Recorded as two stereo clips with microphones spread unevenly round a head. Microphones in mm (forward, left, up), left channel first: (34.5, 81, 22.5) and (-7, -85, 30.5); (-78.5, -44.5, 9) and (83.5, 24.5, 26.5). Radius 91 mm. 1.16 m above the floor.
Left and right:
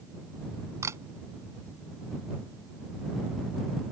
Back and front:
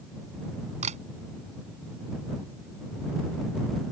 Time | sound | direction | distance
0.8 | a camera shutter | 30° right | ?